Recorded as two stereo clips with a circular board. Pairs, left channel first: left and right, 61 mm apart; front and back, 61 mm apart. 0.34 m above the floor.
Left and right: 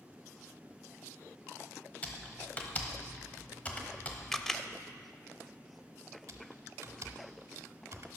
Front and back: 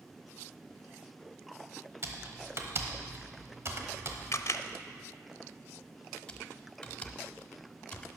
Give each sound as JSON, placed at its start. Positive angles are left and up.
{"t": 2.0, "sound": "typing on a keyboard", "azimuth_deg": 150, "distance_m": 1.1}
{"t": 4.3, "sound": "a camera shutter", "azimuth_deg": 10, "distance_m": 0.5}
{"t": 6.3, "sound": "typing on a keyboard", "azimuth_deg": -70, "distance_m": 0.7}